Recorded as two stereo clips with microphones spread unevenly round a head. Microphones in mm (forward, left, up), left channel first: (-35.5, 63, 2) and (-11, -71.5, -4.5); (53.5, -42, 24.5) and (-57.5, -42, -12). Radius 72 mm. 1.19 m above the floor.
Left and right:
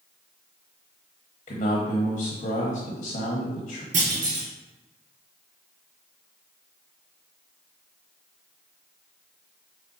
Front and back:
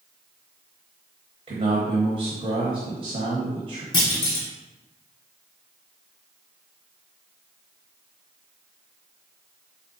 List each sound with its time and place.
1.5 s a man speaking: 145° left, 0.9 m
3.9 s a clunk: 40° right, 1.2 m